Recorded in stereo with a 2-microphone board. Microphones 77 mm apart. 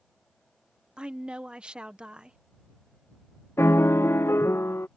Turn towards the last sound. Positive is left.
turn(degrees=30)  # may be behind; listen again after turning